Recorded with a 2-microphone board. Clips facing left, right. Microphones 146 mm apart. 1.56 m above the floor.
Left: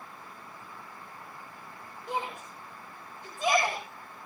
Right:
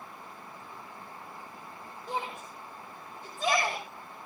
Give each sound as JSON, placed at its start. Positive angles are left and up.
{"t": 2.1, "sound": "a shout", "side_deg": 0, "distance_m": 6.5}